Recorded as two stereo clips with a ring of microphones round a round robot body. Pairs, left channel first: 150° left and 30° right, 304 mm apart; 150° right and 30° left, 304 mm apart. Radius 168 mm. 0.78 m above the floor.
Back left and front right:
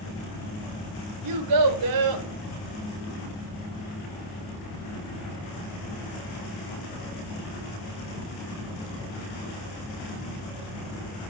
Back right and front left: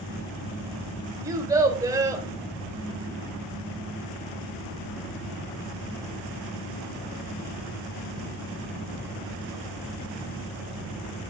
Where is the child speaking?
50° right, 1.7 m.